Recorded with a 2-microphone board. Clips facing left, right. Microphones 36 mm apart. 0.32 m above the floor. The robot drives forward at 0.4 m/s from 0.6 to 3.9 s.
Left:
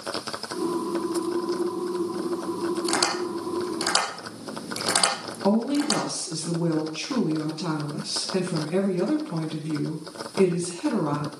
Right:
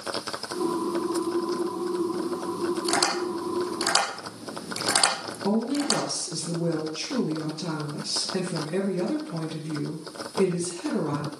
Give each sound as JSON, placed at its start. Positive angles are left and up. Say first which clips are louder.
{"t": 2.9, "sound": "tapping", "louder": "even", "side_deg": 15, "distance_m": 4.5}
{"t": 5.4, "sound": "a woman speaking", "louder": "left 3 dB", "side_deg": 65, "distance_m": 2.5}